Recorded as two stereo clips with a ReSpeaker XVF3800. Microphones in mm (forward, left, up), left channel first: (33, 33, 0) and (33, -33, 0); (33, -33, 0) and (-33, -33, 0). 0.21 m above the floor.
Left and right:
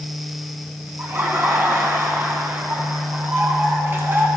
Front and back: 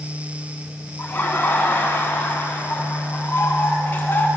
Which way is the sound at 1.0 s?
50° right.